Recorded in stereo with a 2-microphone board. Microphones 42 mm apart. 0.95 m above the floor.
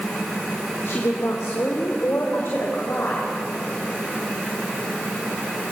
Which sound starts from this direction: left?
A woman speaking, at 0.8 s.